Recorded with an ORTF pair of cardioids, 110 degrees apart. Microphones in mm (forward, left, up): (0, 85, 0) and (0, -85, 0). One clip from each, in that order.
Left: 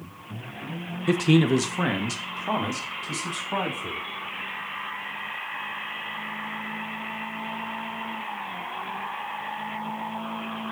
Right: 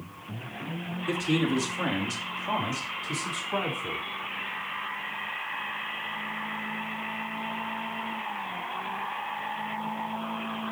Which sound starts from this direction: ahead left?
A man speaking, at 1.1 s.